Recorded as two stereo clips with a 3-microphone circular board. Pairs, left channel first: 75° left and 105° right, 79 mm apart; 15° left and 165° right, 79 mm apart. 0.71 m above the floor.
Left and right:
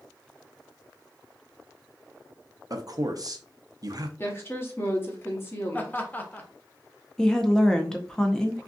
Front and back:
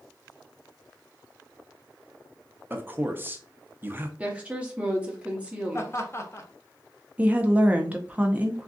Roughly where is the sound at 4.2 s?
Behind left.